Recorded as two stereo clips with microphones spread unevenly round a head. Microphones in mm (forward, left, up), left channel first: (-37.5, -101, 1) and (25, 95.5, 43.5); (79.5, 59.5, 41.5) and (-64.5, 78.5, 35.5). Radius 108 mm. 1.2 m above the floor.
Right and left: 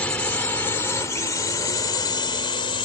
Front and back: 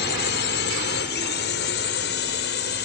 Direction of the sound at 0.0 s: 20° right.